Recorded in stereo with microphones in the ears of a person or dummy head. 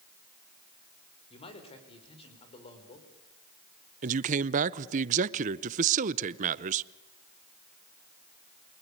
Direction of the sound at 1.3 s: 35° left (ahead or behind).